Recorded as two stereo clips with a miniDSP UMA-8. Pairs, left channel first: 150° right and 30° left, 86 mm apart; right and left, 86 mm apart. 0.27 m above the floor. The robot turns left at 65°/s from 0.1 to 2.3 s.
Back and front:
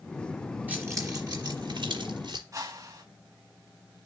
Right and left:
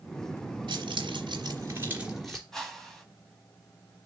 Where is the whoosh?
5° right, 2.5 m.